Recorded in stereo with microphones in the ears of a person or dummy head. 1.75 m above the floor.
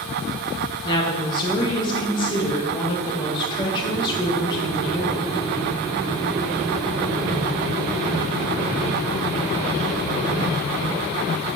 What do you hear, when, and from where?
0.8 s a woman speaking: 25° left (ahead or behind), 1.6 m